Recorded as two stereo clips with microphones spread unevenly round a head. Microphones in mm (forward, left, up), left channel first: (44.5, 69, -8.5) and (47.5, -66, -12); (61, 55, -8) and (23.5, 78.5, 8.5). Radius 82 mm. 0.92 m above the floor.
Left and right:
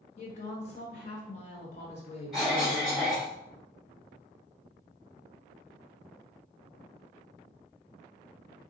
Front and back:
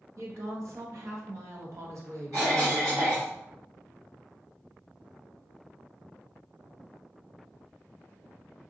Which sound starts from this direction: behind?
A cough, at 2.3 s.